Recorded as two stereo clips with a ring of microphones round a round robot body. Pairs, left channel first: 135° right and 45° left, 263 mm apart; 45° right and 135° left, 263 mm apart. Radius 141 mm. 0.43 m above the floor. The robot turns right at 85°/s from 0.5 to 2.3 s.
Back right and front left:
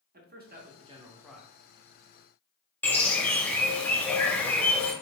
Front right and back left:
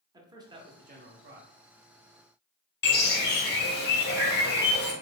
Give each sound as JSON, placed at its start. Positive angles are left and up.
{"t": 0.1, "sound": "a man speaking", "azimuth_deg": 70, "distance_m": 0.9}
{"t": 2.8, "sound": "a bird", "azimuth_deg": -55, "distance_m": 0.9}